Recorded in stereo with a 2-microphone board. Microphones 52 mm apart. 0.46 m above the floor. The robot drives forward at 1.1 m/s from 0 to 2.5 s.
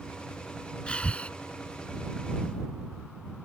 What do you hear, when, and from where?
0.9 s breathing: 20° left (ahead or behind); by 1.3 s 25° left (ahead or behind)